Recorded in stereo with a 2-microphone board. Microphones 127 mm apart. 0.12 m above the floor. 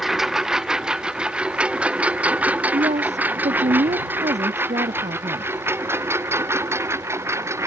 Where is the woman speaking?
65° right (ahead or behind).